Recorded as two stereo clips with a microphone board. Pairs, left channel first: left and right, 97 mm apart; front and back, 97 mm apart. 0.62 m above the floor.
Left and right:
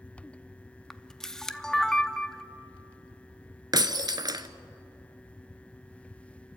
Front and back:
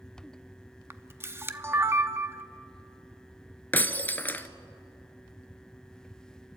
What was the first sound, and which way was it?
A camera shutter, 165° left.